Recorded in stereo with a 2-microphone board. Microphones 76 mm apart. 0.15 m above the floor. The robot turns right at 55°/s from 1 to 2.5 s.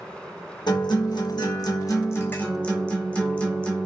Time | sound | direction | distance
0.7 | a guitar | 80° left | 1.1 m